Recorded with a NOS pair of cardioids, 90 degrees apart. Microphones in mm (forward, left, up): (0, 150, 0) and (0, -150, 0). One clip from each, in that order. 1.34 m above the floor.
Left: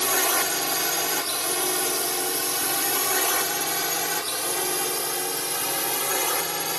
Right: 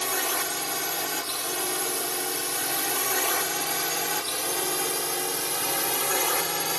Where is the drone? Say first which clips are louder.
Left 4 dB; 35° left; by 6.8 s straight ahead.